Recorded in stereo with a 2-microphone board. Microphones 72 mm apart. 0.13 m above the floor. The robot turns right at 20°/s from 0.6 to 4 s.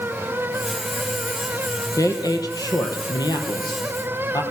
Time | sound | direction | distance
2.0 | a woman speaking | 60° left | 3 m